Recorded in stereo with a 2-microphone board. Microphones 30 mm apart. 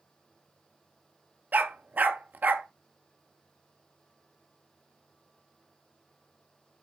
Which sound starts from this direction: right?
A dog barking, at 1.5 s.